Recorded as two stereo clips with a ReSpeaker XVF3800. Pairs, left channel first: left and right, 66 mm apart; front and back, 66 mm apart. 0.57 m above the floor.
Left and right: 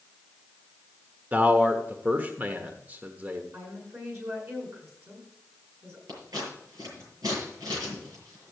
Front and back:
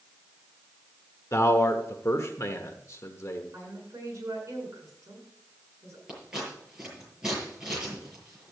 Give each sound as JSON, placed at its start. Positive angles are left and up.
{"t": 1.3, "sound": "a man speaking", "azimuth_deg": -30, "distance_m": 1.2}
{"t": 3.5, "sound": "a woman speaking", "azimuth_deg": -135, "distance_m": 7.5}
{"t": 6.1, "sound": "scissors", "azimuth_deg": -100, "distance_m": 8.0}